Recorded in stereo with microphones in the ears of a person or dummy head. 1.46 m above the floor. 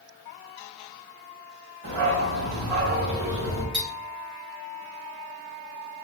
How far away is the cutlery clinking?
About 1.5 m.